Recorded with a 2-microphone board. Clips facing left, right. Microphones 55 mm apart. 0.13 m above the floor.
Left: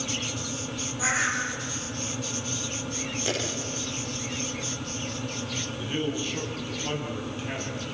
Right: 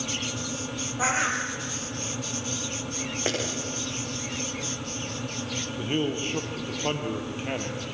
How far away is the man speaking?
About 4 m.